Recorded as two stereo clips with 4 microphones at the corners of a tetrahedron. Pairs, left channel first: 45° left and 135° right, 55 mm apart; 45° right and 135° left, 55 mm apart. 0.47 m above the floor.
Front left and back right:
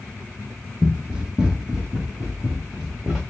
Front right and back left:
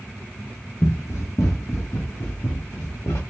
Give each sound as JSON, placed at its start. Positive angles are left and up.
{"t": 0.8, "sound": "running footsteps", "azimuth_deg": -70, "distance_m": 0.8}